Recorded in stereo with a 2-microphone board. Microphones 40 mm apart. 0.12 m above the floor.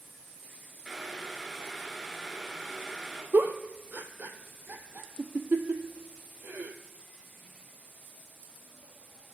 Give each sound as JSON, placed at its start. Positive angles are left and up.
{"t": 0.8, "sound": "boiling", "side_deg": -5, "distance_m": 1.7}
{"t": 3.3, "sound": "a giggle", "side_deg": -45, "distance_m": 0.7}